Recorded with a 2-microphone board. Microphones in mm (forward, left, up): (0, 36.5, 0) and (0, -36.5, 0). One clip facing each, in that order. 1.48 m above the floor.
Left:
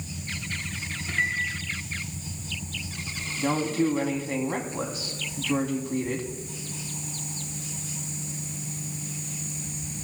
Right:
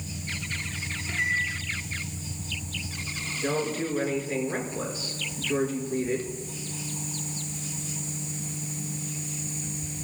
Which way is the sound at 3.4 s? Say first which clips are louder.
Left 4 dB; 85° left.